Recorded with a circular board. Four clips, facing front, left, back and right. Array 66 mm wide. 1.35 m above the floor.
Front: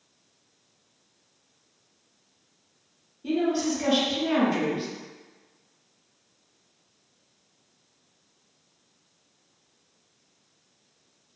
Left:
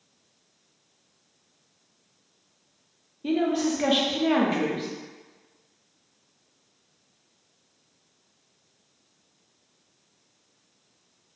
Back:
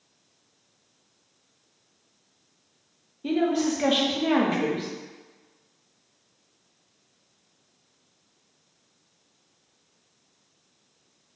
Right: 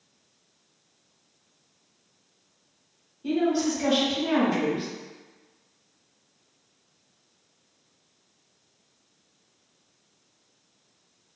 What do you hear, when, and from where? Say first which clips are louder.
3.2 s a woman speaking: even, back 1 dB; 140° left, 0.5 m